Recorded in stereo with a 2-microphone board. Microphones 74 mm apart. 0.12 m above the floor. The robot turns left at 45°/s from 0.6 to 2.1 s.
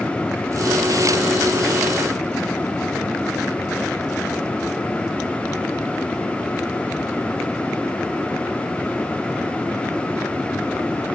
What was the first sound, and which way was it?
Only background noise.